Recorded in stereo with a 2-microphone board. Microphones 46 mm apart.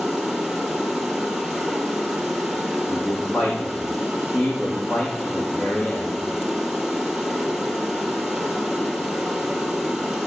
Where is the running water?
5° right (ahead or behind), 2.5 m.